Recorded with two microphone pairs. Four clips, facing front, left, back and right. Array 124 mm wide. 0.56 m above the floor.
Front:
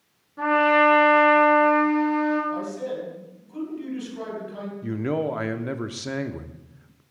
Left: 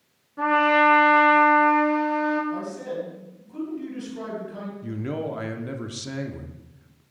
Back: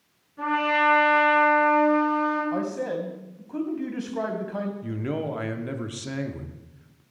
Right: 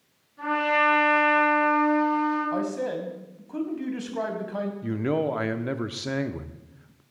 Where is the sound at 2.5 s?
135° right, 3 m.